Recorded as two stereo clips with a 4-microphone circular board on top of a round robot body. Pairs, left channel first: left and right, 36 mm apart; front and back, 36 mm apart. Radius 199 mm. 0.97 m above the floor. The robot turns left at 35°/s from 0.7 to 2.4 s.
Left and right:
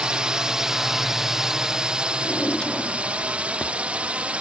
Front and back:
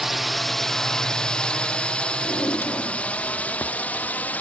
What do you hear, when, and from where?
0.0 s a drone: 105° right; by 4.4 s 40° right
2.2 s a drawer: 25° left; by 3.8 s 20° left